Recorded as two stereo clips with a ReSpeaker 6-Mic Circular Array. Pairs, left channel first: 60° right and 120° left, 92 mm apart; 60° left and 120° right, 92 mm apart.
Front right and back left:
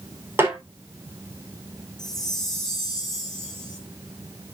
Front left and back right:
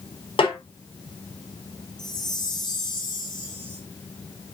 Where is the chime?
25° left, 3.5 m.